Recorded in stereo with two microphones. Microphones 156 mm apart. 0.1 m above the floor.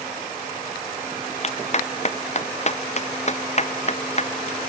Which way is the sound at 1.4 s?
45° left (ahead or behind).